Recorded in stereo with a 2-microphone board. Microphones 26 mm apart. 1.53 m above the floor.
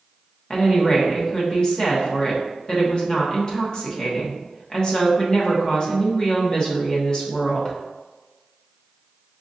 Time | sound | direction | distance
0.5 | a woman speaking | 35° left (ahead or behind) | 1.2 m